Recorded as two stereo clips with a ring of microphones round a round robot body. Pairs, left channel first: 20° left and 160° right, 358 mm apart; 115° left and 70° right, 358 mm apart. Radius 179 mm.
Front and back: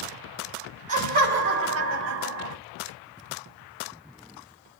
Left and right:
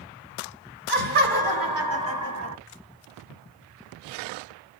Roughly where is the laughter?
Right.